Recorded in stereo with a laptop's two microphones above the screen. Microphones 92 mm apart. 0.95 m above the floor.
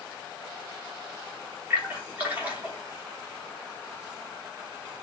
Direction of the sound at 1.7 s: 20° right (ahead or behind).